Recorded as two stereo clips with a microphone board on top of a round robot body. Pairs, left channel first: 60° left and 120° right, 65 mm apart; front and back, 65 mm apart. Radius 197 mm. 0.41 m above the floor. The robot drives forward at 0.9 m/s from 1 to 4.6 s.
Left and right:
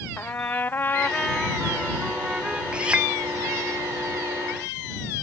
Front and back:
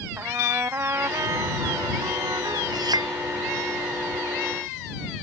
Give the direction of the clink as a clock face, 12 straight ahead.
6 o'clock.